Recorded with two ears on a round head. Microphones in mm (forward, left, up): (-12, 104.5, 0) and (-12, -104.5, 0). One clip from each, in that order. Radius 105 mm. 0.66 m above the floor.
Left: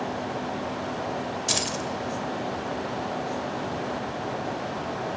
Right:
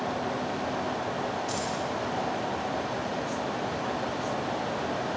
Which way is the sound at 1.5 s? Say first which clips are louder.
Left 4 dB; 80° left.